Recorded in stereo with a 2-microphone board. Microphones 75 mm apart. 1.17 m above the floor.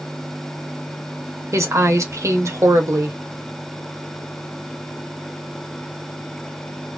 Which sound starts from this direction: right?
A woman speaking, at 1.5 s.